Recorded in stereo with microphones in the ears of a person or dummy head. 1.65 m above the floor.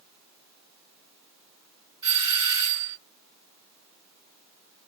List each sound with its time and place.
2.0 s a doorbell: 30° right (ahead or behind), 1.6 m